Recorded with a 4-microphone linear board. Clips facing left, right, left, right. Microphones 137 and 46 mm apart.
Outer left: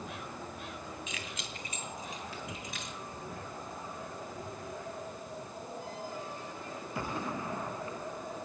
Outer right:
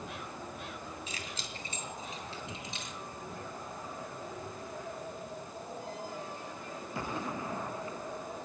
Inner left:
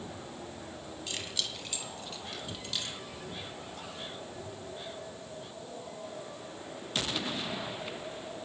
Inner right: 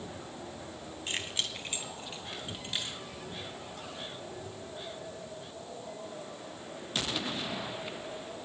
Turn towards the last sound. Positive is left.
turn(degrees=-25)  # may be behind; listen again after turning